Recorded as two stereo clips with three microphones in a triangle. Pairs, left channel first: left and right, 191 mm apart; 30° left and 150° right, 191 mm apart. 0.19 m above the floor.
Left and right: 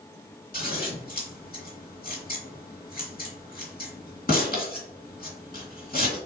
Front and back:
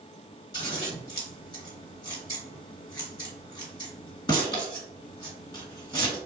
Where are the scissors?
90° left, 2.5 m.